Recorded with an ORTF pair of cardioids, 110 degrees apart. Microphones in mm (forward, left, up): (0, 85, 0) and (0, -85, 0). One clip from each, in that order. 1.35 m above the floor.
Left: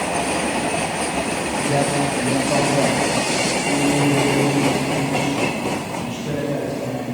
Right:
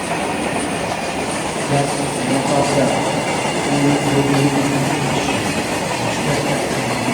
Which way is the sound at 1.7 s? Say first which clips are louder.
Right 1 dB; 5° left.